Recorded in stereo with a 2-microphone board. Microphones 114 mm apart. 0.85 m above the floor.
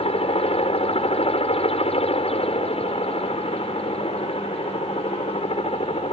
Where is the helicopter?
60° left (ahead or behind).